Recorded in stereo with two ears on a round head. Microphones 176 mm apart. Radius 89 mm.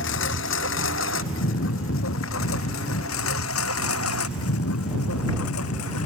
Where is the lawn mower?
70° left (ahead or behind); by 6.1 s 85° left.